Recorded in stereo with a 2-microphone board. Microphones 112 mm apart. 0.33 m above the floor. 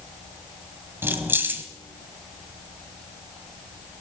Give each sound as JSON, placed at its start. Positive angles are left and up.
{"t": 1.0, "sound": "keys jangling", "side_deg": -20, "distance_m": 1.3}